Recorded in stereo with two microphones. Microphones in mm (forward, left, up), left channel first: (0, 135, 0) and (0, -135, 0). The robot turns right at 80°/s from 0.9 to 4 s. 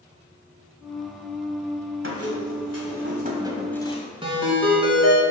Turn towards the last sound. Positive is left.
turn(degrees=-20)  # may be behind; listen again after turning